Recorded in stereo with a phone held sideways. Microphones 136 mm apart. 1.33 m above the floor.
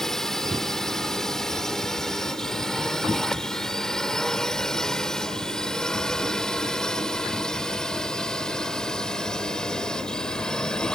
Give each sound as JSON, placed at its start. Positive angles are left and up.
{"t": 0.0, "sound": "a drone", "side_deg": 5}